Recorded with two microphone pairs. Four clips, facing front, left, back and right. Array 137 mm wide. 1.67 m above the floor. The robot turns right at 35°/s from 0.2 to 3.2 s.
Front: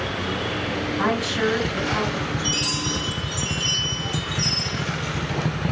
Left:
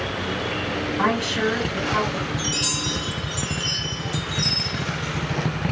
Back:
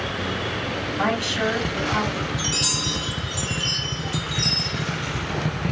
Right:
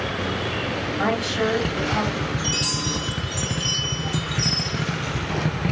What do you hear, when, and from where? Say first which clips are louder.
1.0 s a woman speaking: left 1 dB, even; 110° left, 2.5 m; by 2.3 s 155° left, 2.5 m
2.4 s a chime: right 1 dB, front 1 dB; 170° right, 1.9 m; by 4.8 s 140° right, 1.9 m